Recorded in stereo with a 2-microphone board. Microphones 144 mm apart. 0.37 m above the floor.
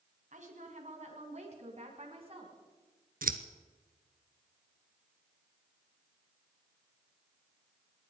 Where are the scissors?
80° right, 1.0 m.